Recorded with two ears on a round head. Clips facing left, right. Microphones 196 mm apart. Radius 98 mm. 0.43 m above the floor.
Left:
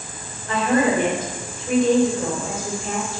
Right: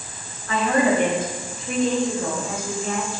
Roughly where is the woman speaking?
Centre.